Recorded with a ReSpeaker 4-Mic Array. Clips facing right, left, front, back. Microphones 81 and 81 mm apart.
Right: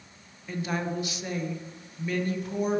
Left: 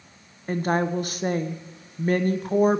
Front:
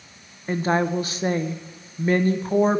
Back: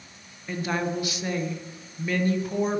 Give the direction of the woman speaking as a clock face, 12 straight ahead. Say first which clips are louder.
Left 7 dB, front 6 dB; 10 o'clock.